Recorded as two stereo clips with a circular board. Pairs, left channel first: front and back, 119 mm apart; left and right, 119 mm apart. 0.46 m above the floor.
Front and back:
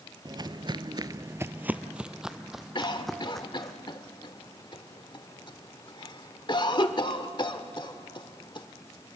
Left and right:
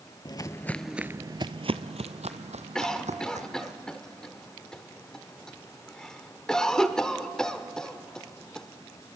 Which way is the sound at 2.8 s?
10° left.